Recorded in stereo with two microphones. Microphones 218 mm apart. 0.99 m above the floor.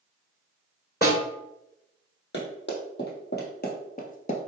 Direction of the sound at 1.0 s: 45° left (ahead or behind).